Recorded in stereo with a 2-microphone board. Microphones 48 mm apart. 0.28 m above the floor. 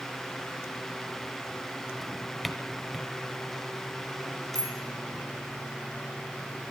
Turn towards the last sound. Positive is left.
turn(degrees=55)  # may be behind; listen again after turning